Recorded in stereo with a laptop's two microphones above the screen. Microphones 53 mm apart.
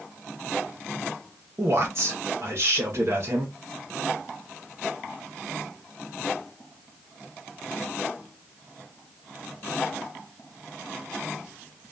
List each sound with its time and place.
1.6 s a man speaking: 55° right (ahead or behind), 1.1 m